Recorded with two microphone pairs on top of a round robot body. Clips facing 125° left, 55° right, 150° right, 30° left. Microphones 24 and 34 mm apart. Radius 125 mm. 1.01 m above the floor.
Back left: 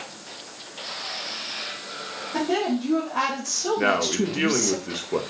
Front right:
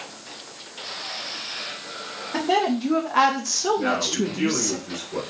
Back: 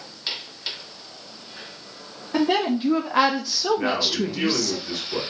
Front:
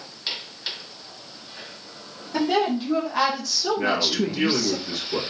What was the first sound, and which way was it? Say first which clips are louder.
A woman speaking: front right 3 dB, back 1 dB; 105° right.